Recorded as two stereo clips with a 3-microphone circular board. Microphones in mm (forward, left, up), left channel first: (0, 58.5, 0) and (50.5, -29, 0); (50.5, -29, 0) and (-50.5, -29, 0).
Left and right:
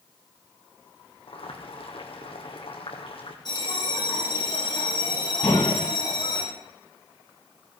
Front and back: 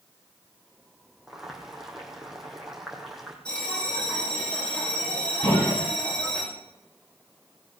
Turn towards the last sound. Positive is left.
turn(degrees=30)